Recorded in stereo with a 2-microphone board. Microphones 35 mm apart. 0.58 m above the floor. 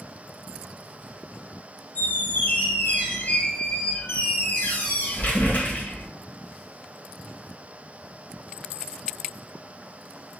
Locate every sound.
1.9 s a squeak: 55° left (ahead or behind), 0.8 m